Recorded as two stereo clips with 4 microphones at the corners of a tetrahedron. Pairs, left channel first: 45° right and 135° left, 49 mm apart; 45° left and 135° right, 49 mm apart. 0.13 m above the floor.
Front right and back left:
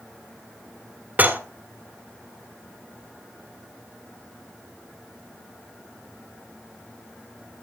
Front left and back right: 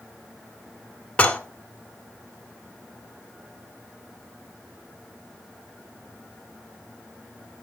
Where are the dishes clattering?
100° left, 1.2 m.